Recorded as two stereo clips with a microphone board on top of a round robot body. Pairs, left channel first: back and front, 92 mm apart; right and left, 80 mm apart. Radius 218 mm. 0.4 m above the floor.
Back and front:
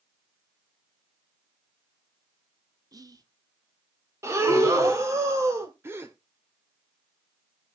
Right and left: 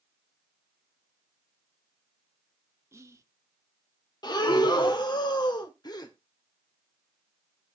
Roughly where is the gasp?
Ahead right.